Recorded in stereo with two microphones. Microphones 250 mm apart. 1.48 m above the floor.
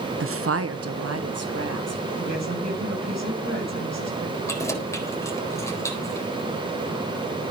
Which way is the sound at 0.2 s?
50° right (ahead or behind).